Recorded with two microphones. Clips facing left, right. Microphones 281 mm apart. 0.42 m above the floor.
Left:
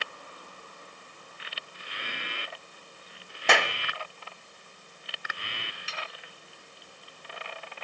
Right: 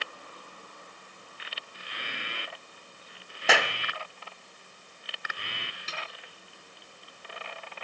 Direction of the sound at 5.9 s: 45° right (ahead or behind).